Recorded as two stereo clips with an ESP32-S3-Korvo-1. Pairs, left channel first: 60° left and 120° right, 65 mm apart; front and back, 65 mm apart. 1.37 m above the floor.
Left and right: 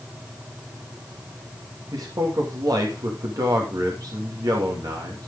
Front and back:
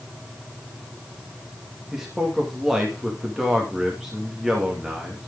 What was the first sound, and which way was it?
A man speaking, 95° right.